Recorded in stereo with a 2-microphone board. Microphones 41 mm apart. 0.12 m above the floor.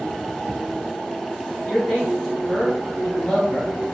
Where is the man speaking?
25° left (ahead or behind), 2.0 m.